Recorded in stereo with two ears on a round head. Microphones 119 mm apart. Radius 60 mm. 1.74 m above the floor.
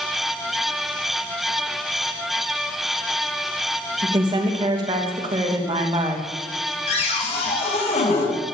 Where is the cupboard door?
55° left (ahead or behind), 6 m.